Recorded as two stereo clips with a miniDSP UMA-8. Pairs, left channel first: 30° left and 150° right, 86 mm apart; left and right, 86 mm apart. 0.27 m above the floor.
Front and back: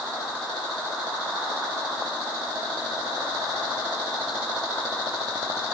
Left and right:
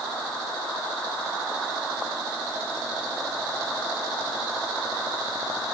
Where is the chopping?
No chopping in this recording.